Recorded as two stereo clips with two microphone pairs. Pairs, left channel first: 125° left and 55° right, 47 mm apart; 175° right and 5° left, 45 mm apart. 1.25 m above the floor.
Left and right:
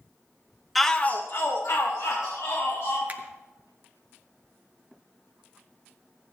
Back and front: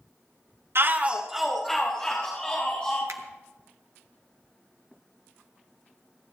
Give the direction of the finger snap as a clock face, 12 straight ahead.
12 o'clock.